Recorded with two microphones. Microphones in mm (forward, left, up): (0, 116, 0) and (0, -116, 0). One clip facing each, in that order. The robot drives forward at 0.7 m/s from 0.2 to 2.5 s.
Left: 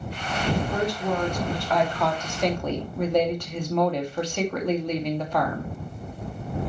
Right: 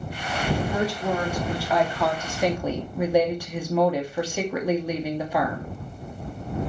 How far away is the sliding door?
I don't hear a sliding door.